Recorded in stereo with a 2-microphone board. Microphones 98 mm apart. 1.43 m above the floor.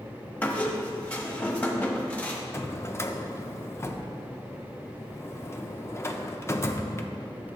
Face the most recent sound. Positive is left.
turn(degrees=25)  # may be behind; listen again after turning